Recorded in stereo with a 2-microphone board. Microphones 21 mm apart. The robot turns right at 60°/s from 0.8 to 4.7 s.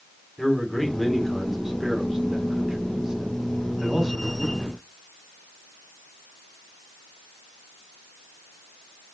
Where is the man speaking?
10° left (ahead or behind), 1.7 m; by 4.8 s 20° left (ahead or behind), 1.7 m.